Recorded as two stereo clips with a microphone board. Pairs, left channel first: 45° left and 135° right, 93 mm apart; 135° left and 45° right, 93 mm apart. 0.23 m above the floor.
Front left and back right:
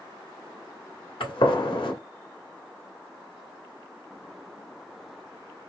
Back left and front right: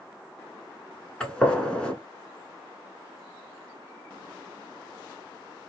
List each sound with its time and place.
1.2 s a gunshot: 55° left, 1.3 m